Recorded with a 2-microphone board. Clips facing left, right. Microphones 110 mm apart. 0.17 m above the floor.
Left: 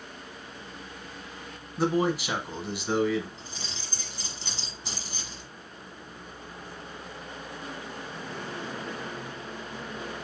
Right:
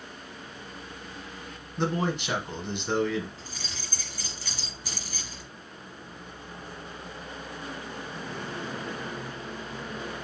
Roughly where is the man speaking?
Centre.